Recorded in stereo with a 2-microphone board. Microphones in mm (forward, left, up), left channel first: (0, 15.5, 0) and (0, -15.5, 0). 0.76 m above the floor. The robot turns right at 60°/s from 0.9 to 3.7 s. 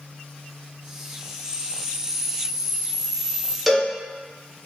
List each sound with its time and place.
1.4 s a camera shutter: 40° left, 1.3 m; by 3.6 s 170° left, 1.3 m
3.7 s a cowbell: 5° right (ahead or behind), 0.5 m; by 3.9 s 10° right (ahead or behind), 0.5 m